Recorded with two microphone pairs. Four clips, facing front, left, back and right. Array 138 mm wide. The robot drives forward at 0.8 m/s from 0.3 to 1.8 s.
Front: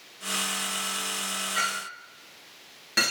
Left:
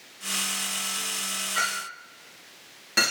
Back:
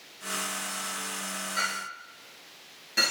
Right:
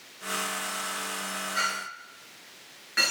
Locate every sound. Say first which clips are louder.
1.6 s a clink: left 3 dB, front 2 dB; 50° left, 4.5 m; by 3.1 s 55° left, 4 m